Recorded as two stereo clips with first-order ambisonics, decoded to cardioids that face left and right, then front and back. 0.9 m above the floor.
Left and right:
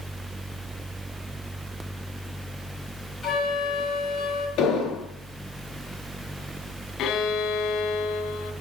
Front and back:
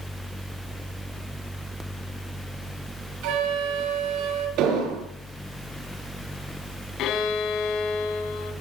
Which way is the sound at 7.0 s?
40° left.